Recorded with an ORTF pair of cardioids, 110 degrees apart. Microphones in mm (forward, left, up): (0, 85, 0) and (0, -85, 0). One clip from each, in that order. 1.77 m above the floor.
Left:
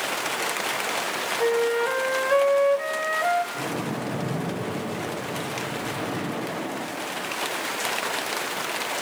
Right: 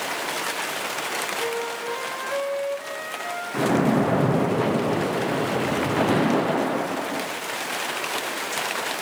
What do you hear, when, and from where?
1.4 s a flute: 45° left, 1.4 m
3.5 s a splash: 65° right, 1.1 m